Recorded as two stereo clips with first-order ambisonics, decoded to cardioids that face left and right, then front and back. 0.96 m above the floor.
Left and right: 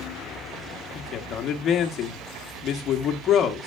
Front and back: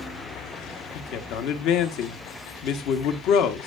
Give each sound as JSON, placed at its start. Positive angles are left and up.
{"t": 0.9, "sound": "a man speaking", "azimuth_deg": 35, "distance_m": 1.4}